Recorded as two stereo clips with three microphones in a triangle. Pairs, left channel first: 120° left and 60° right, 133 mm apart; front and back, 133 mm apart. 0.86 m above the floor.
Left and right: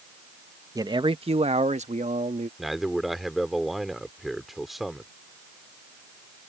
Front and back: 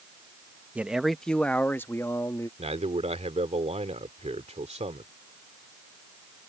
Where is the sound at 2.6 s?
150° right.